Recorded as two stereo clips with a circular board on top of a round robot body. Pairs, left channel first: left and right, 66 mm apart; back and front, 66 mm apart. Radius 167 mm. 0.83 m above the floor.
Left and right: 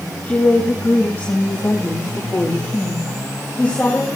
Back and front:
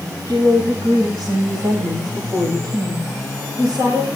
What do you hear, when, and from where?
0.3 s a woman speaking: 25° left, 8.5 m; by 4.1 s 20° left, 5.5 m